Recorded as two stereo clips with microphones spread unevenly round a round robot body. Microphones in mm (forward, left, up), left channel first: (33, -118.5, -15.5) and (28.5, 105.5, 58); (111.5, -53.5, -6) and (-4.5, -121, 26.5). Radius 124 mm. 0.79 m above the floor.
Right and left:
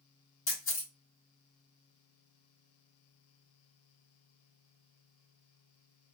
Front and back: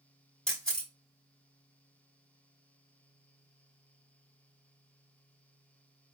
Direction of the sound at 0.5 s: 55° right.